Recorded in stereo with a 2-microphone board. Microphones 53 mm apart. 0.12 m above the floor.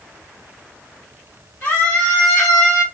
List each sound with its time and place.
1.6 s a scream: 20° left (ahead or behind), 3 m; by 2.8 s 5° right (ahead or behind), 2 m